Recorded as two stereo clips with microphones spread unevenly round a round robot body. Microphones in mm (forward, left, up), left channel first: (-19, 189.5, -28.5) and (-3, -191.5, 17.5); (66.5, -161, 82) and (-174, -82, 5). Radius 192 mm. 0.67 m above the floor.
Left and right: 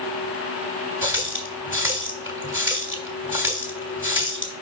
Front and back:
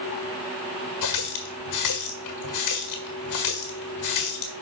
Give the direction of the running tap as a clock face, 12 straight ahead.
12 o'clock.